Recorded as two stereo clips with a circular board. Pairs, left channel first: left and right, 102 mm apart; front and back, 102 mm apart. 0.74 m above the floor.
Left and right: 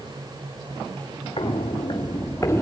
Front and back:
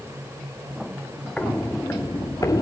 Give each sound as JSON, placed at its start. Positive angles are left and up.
{"t": 1.4, "sound": "footsteps", "azimuth_deg": 75, "distance_m": 1.8}